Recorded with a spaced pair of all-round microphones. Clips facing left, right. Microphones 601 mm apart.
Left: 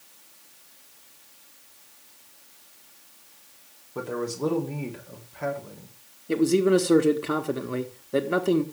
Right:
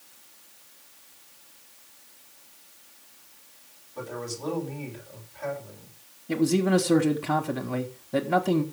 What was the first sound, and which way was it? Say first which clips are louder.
A man speaking: left 6 dB; 85° left.